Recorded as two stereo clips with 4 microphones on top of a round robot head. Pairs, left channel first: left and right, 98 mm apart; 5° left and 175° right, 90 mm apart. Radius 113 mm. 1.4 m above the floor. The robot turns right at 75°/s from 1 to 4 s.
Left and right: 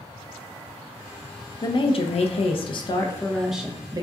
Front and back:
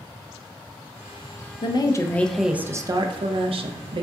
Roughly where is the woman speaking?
Ahead left.